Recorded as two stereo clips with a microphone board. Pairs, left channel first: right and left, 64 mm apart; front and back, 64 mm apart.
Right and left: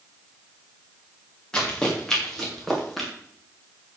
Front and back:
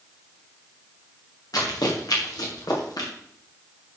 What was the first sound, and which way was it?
Running footsteps, 15° right.